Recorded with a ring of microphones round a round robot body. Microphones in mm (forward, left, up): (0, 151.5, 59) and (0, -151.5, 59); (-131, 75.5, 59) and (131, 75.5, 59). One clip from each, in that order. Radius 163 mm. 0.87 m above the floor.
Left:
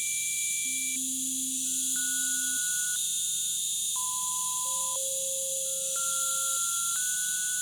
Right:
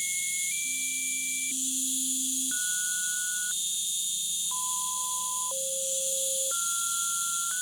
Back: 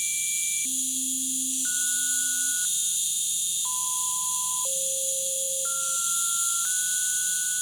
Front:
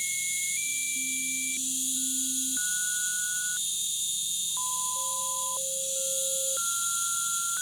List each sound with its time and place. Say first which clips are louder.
0.0 s an insect: right 1 dB, back 2 dB; 175° left, 1.9 m